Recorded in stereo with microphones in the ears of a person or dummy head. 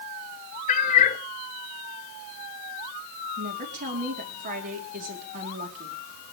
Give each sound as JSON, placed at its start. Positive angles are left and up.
{"t": 0.7, "sound": "a cat meowing", "side_deg": 40, "distance_m": 1.7}
{"t": 3.4, "sound": "a woman speaking", "side_deg": -45, "distance_m": 4.5}